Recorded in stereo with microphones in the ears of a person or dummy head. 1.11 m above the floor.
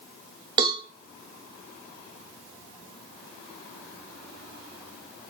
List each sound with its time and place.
0.6 s a cowbell: 20° right (ahead or behind), 1.4 m